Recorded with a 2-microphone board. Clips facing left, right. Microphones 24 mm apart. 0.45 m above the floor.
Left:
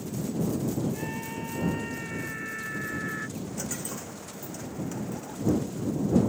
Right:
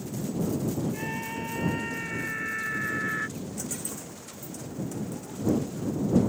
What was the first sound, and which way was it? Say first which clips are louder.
A scream: right 1 dB; 20° right (ahead or behind).